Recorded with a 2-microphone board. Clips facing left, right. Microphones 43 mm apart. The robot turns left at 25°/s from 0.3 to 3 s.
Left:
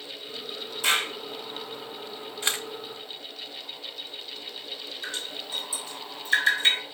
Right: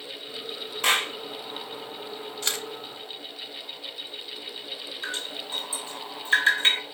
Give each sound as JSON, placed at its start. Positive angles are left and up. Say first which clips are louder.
{"t": 0.8, "sound": "a clap", "louder": "right 1 dB", "side_deg": -60, "distance_m": 2.0}
{"t": 2.4, "sound": "a camera shutter", "louder": "left 2 dB", "side_deg": 20, "distance_m": 0.7}
{"t": 5.0, "sound": "dripping", "louder": "right 2 dB", "side_deg": -35, "distance_m": 2.5}